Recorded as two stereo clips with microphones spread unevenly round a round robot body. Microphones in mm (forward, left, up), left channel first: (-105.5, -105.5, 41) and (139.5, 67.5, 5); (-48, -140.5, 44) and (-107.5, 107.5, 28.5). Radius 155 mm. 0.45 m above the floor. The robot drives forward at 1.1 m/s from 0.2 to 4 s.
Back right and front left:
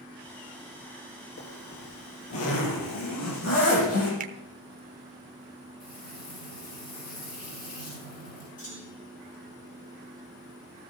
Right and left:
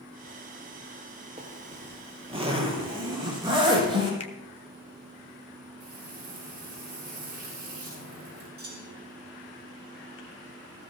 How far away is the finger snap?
About 0.9 m.